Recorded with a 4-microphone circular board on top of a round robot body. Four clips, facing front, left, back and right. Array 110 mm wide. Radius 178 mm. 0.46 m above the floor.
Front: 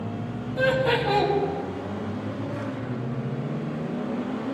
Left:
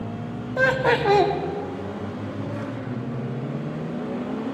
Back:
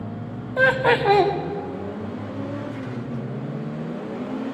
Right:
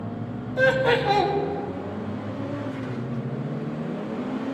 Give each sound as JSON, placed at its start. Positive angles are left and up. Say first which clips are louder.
{"t": 0.6, "sound": "laughter", "louder": "even, back 4 dB", "azimuth_deg": 150, "distance_m": 1.6}